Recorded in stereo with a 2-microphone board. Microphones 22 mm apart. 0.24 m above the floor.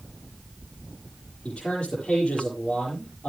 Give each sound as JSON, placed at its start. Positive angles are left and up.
{"t": 1.4, "sound": "a man speaking", "side_deg": 60, "distance_m": 7.5}